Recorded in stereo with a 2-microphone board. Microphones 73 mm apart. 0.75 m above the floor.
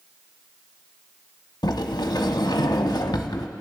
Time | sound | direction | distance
1.6 | a sliding door | 65° left (ahead or behind) | 0.9 m